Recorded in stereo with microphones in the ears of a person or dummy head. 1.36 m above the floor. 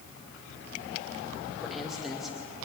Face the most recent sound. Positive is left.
turn(degrees=0)  # may be behind; listen again after turning